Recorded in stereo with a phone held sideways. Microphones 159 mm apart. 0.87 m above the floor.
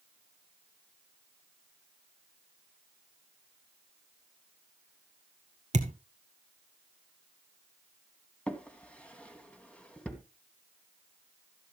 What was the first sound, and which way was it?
A thud, 50° right (ahead or behind).